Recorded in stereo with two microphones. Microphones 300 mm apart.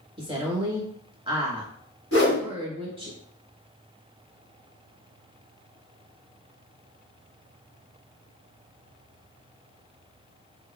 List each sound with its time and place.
0.2 s a woman speaking: 15° right (ahead or behind), 1.0 m
2.1 s a whoosh: 45° left (ahead or behind), 1.7 m